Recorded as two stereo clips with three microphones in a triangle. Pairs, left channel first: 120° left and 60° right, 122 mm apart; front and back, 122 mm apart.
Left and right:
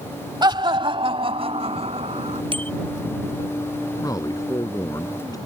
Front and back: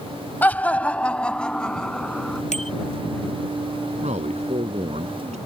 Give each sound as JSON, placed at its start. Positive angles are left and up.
{"t": 0.4, "sound": "laughter", "azimuth_deg": -65}
{"t": 2.5, "sound": "a bicycle bell", "azimuth_deg": -15}
{"t": 4.0, "sound": "a man speaking", "azimuth_deg": 180}